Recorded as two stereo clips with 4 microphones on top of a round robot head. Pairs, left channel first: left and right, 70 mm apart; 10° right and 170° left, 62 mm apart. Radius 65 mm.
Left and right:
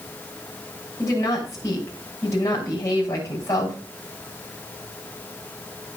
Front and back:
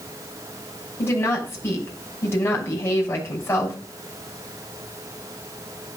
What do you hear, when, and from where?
1.0 s a woman speaking: 45° left, 6 m